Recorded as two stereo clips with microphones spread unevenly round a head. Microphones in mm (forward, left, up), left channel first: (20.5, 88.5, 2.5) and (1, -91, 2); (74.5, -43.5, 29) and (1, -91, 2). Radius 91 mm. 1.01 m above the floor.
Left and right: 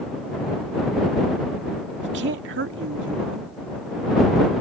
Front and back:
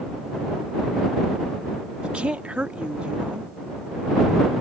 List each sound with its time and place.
2.0 s a woman speaking: 70° right